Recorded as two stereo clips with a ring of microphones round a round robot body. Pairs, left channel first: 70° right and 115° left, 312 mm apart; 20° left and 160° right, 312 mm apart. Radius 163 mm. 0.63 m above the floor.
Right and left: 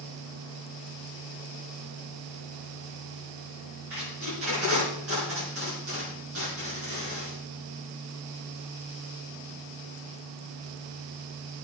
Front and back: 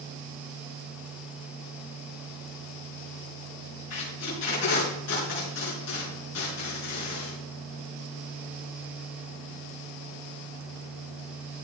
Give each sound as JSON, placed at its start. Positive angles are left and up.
{"t": 3.9, "sound": "tape being pulled", "azimuth_deg": 65, "distance_m": 6.0}